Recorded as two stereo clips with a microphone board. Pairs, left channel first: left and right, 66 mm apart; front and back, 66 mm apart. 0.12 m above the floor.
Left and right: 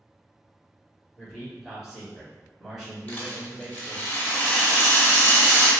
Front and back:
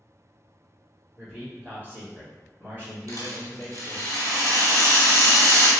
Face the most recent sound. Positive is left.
turn(degrees=155)